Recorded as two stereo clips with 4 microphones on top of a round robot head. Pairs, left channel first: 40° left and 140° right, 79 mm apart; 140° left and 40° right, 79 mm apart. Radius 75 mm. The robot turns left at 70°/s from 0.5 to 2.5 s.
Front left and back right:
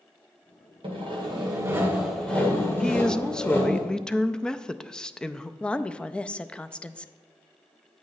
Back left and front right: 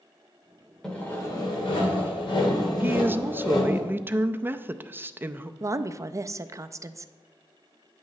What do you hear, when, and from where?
0.8 s sawing: 140° right, 1.8 m; by 3.8 s 105° left, 1.8 m
2.8 s a woman speaking: 25° right, 0.5 m
5.6 s a woman speaking: 30° right, 0.5 m